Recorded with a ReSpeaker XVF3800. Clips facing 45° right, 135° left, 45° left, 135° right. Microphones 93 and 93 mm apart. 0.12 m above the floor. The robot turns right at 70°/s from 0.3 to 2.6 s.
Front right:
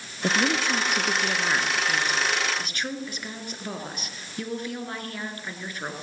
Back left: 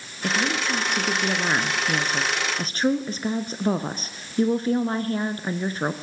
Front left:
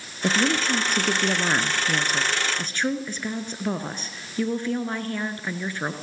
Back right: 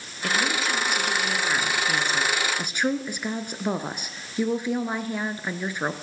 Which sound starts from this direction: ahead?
A woman speaking, at 0.2 s.